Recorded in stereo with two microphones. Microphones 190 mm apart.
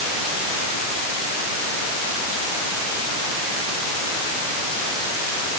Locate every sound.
Only background noise.